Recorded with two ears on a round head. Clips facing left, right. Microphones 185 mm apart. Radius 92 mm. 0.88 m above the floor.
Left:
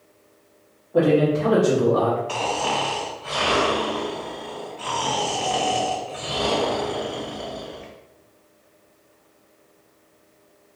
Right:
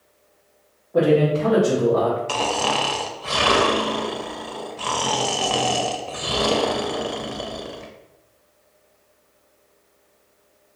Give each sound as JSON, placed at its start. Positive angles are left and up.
{"t": 0.9, "sound": "a man speaking", "side_deg": 0, "distance_m": 1.2}
{"t": 2.3, "sound": "snoring", "side_deg": -55, "distance_m": 0.5}